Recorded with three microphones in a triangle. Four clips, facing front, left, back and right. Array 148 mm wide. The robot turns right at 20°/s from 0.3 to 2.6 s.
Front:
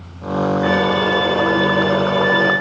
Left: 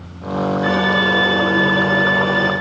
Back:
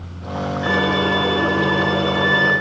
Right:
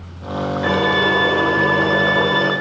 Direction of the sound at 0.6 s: 70° right.